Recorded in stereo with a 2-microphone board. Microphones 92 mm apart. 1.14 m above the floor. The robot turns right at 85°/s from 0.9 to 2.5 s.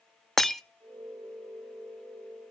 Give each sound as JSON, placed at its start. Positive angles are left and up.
{"t": 0.4, "sound": "breaking glass", "side_deg": 5, "distance_m": 0.6}